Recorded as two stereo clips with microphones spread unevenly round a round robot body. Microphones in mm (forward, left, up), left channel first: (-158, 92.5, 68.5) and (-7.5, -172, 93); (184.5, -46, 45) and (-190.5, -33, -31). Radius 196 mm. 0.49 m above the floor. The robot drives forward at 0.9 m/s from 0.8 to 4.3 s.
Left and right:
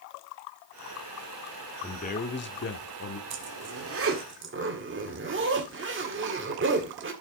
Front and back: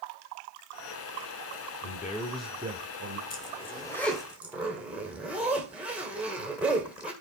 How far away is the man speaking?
About 1.1 m.